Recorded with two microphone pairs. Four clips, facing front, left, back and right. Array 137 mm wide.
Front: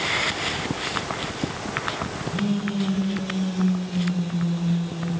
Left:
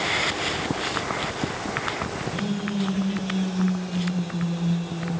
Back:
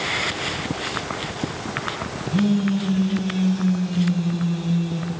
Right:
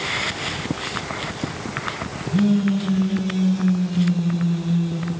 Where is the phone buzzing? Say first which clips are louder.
Right 13 dB, back 6 dB; 135° right, 3.5 m.